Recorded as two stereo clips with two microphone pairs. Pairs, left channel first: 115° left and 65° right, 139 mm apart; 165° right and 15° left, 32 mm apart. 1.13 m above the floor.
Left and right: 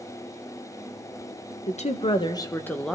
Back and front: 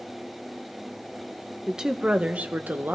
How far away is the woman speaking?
About 0.9 m.